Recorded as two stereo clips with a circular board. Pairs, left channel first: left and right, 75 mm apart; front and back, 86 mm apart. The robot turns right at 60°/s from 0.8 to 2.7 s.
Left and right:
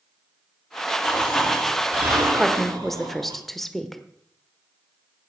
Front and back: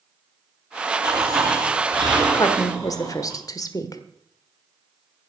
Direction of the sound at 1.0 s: 150° left.